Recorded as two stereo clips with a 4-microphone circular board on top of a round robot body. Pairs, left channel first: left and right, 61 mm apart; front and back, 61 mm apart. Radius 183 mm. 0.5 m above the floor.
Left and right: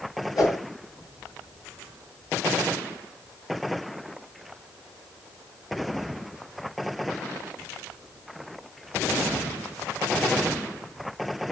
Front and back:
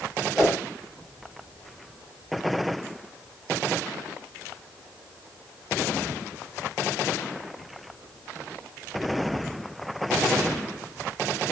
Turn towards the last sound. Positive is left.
turn(degrees=95)